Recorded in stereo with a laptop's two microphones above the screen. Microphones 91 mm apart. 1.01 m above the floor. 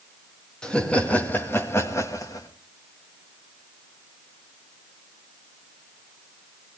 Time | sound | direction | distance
0.6 | laughter | 10° left (ahead or behind) | 1.8 m